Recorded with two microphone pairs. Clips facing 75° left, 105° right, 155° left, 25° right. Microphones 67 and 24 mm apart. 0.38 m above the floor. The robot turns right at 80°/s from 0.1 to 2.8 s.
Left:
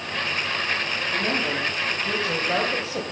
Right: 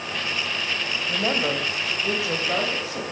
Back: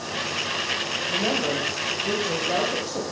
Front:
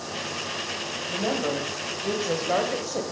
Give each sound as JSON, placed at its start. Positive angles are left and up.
{"t": 1.1, "sound": "a woman speaking", "azimuth_deg": -120, "distance_m": 1.7}